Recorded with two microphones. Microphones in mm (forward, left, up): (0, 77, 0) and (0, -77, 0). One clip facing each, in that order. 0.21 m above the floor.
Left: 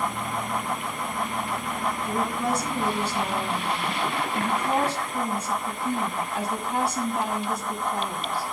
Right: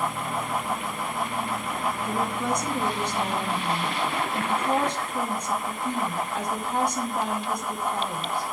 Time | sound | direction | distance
2.0 | a woman speaking | 10° left (ahead or behind) | 2.0 m